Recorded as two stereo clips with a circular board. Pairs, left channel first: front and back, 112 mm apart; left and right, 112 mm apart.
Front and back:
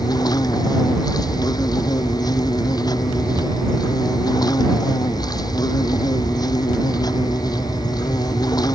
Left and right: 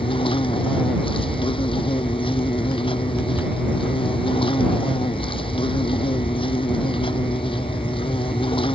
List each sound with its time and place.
0.0 s an insect: 55° left